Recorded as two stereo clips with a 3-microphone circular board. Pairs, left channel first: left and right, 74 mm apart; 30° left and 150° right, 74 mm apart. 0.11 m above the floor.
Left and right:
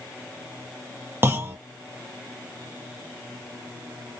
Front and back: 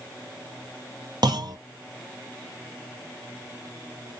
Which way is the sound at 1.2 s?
145° right.